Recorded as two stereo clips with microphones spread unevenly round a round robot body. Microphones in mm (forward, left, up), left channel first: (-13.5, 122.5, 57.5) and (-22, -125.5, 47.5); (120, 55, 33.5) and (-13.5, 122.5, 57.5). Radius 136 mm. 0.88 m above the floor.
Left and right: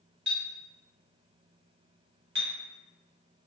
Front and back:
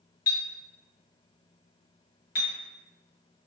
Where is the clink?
45° right, 1.2 m.